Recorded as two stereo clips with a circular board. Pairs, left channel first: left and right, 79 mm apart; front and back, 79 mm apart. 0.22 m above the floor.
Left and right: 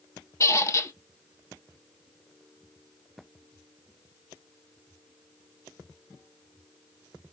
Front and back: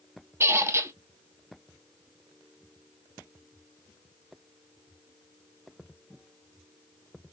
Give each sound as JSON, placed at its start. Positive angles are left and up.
{"t": 0.4, "sound": "a squeak", "azimuth_deg": 130, "distance_m": 0.5}